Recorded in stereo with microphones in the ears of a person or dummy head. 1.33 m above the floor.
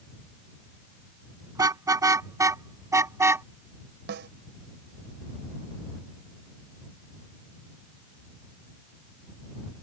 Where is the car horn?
20° right (ahead or behind); by 3.5 s 15° right (ahead or behind).